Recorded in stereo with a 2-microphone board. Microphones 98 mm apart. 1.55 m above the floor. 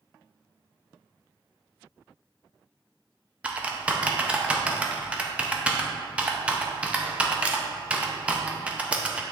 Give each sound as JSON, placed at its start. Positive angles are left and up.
{"t": 3.4, "sound": "typing on a keyboard", "side_deg": -15, "distance_m": 0.6}